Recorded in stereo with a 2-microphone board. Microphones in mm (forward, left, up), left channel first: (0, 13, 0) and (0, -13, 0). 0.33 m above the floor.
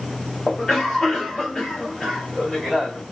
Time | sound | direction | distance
0.5 | a cough | 30° left (ahead or behind) | 1.8 m